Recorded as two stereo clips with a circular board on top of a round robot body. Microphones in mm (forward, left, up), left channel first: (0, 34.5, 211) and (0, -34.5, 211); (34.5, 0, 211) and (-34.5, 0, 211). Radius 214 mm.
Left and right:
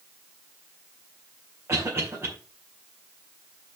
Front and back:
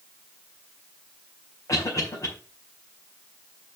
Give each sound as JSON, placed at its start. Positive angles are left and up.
{"t": 1.7, "sound": "a cough", "azimuth_deg": -40, "distance_m": 4.0}